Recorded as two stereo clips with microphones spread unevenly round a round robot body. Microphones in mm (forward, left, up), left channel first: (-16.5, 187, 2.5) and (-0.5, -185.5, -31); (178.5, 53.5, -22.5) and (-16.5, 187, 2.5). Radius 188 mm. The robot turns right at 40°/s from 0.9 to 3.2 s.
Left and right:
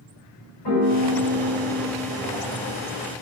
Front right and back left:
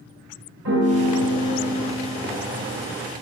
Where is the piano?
125° left, 3 m; by 2.2 s straight behind, 3 m.